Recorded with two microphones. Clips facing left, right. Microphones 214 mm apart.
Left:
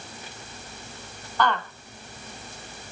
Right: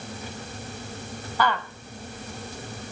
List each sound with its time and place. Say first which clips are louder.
1.4 s a woman speaking: left 1 dB; 10° right (ahead or behind), 1.2 m; by 2.9 s 40° left (ahead or behind), 1.0 m